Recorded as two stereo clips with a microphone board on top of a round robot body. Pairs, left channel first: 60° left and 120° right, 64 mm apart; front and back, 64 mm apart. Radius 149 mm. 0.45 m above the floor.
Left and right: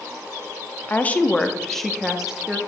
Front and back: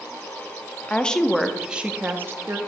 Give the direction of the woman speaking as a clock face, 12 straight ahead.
11 o'clock.